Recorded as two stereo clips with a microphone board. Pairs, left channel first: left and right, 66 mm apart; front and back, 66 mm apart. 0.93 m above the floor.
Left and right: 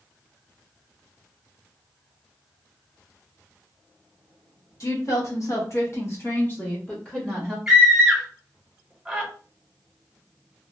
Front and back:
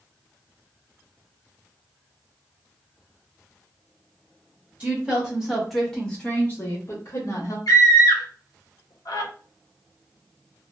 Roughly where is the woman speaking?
Left.